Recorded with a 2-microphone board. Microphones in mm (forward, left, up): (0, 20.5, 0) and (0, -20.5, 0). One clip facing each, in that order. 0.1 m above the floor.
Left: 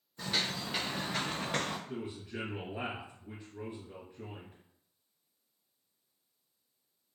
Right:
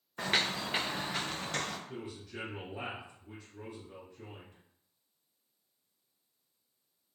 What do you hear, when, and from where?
0.2 s footsteps: 65° right (ahead or behind), 0.5 m; by 1.8 s 20° left (ahead or behind), 0.8 m
1.9 s a man speaking: 25° left (ahead or behind), 1.8 m